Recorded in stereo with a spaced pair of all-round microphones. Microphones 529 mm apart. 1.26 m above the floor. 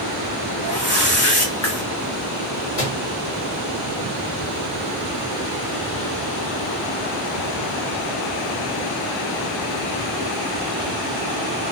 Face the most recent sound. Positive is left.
turn(degrees=85)